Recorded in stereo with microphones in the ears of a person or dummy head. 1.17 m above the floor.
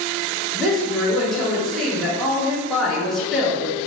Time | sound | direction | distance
0.5 | a woman speaking | centre (ahead or behind) | 1.1 m